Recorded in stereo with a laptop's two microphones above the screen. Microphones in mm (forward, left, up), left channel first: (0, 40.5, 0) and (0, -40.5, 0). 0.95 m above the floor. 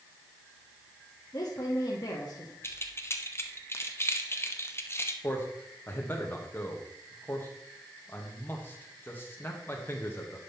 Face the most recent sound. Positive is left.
turn(degrees=25)  # may be behind; listen again after turning